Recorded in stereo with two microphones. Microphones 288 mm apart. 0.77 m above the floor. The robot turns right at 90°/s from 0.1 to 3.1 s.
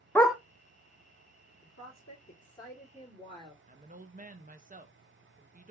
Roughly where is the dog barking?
Centre.